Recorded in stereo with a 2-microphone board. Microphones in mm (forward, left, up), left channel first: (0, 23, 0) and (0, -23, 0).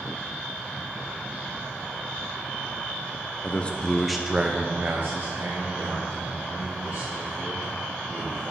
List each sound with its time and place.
3.4 s a man speaking: 35° left (ahead or behind), 0.6 m; by 8.5 s 70° right (ahead or behind), 2.5 m